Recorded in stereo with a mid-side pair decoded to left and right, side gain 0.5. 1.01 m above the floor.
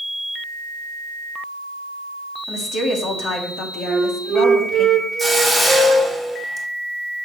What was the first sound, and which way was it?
A woman speaking, 60° left.